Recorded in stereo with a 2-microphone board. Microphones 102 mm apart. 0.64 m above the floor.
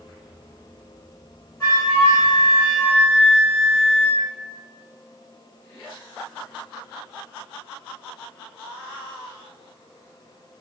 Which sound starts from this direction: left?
A flute, at 1.6 s.